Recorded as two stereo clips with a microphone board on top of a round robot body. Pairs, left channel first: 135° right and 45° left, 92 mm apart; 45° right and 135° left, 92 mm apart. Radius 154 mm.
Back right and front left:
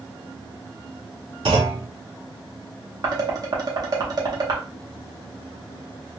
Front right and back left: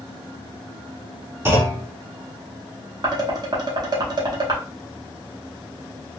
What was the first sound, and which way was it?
A clunk, 70° left.